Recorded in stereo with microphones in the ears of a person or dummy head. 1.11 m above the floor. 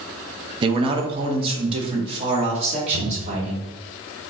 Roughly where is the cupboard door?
Right.